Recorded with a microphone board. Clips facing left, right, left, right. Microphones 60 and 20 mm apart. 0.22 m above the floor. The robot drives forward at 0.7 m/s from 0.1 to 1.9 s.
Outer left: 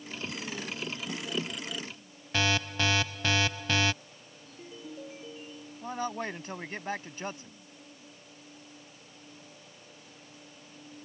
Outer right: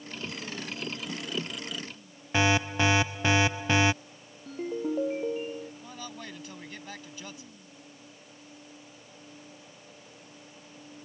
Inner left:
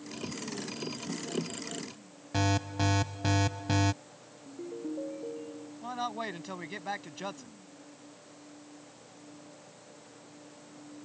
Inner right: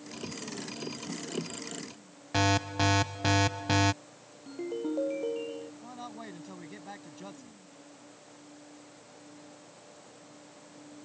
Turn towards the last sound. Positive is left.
turn(degrees=40)  # may be behind; listen again after turning